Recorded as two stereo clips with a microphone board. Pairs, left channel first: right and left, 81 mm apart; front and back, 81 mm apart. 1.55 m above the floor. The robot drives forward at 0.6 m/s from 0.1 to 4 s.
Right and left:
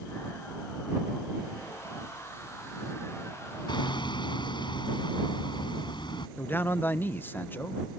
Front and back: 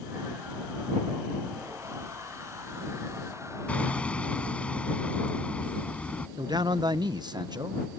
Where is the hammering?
70° right; by 6.3 s 75° right.